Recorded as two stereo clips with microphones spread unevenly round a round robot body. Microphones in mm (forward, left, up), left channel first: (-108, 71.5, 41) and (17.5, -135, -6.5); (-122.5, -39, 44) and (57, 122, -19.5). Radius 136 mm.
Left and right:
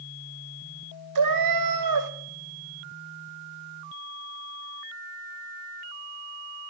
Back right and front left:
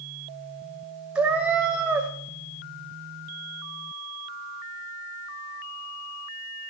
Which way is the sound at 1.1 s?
50° right.